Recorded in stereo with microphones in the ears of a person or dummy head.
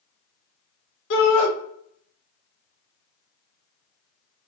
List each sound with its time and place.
1.1 s a shout: 60° left (ahead or behind), 1.0 m